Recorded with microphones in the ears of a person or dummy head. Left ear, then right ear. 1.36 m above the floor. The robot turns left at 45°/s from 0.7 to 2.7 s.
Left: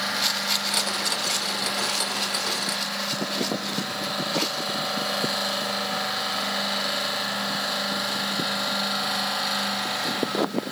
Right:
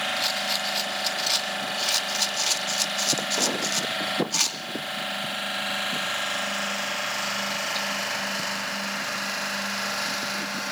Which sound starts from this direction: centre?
A rattle, at 0.2 s.